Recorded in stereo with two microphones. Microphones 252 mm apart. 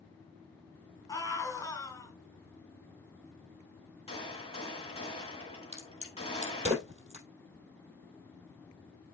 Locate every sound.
1.1 s a scream: 15° left (ahead or behind), 2.5 m
4.1 s a gunshot: 25° left (ahead or behind), 2 m
5.7 s a crack: 25° right (ahead or behind), 3 m